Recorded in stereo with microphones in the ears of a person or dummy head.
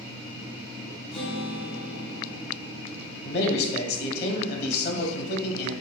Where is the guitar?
35° left (ahead or behind), 1.8 m.